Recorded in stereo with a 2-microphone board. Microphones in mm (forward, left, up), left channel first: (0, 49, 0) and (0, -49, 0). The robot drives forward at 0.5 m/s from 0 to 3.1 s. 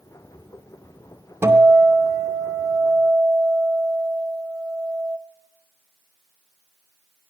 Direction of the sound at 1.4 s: 25° right (ahead or behind).